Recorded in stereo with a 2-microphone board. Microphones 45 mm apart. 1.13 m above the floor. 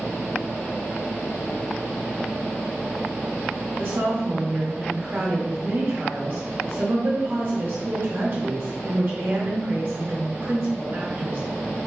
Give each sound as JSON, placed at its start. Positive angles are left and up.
{"t": 3.8, "sound": "a woman speaking", "side_deg": -50, "distance_m": 1.2}